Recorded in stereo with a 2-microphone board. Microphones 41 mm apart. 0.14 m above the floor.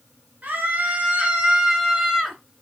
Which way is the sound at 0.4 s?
45° right (ahead or behind).